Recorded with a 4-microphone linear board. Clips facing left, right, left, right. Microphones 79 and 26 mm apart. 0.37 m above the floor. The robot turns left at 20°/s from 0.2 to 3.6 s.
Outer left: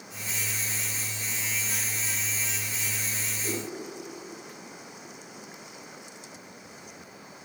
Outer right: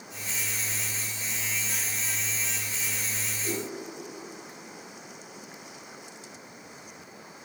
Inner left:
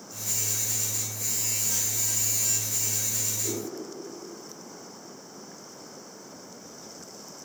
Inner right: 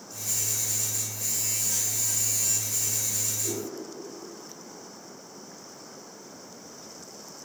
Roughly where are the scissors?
No scissors in this recording.